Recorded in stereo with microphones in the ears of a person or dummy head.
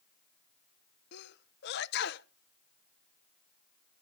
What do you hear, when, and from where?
1.1 s a sneeze: 60° left (ahead or behind), 0.8 m